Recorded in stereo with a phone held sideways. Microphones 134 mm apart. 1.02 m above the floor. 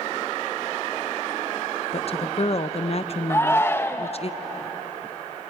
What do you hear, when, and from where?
1.9 s a woman speaking: 50° left (ahead or behind), 0.8 m
3.3 s a shout: 20° left (ahead or behind), 1.1 m